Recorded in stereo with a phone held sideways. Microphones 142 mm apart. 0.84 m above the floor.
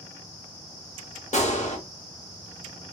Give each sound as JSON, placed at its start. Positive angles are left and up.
{"t": 1.3, "sound": "a gunshot", "side_deg": 55, "distance_m": 1.3}